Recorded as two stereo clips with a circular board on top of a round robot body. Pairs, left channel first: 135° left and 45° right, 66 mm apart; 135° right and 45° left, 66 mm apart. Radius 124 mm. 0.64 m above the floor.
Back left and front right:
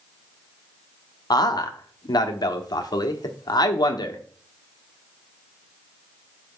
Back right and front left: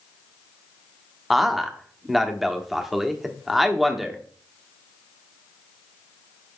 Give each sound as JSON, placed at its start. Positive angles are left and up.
{"t": 1.3, "sound": "a man speaking", "azimuth_deg": 135, "distance_m": 1.4}